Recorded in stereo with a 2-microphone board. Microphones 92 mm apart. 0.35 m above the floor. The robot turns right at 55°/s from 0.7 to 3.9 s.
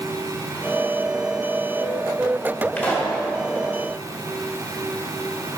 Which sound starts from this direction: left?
A pop, at 2.8 s.